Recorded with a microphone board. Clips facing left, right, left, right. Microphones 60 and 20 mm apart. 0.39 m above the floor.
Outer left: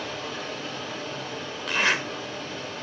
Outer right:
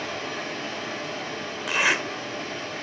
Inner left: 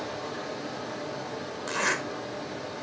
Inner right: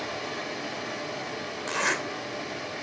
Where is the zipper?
10° right (ahead or behind), 1.4 m.